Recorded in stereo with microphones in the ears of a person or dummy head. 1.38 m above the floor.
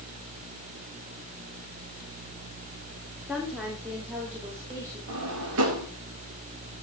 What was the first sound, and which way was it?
A woman speaking, 5° right (ahead or behind).